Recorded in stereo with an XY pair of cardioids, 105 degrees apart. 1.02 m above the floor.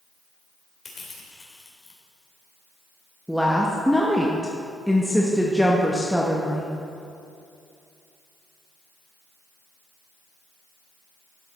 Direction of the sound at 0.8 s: 30° left.